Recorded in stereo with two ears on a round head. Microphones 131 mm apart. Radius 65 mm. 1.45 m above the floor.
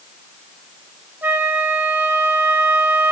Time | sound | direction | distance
1.2 | a flute | 10° right (ahead or behind) | 0.9 m